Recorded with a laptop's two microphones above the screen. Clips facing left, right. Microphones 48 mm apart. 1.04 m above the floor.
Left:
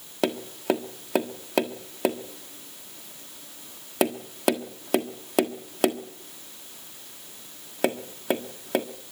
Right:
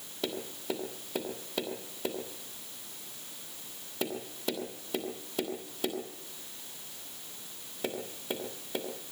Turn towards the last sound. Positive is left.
turn(degrees=65)  # may be behind; listen again after turning